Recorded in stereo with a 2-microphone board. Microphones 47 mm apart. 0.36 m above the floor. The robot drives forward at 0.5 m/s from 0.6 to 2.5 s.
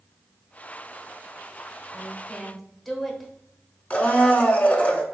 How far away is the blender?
About 0.6 m.